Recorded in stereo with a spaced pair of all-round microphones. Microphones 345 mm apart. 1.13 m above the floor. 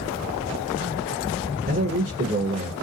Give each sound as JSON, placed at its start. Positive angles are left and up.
{"t": 1.6, "sound": "a man speaking", "side_deg": -35, "distance_m": 0.9}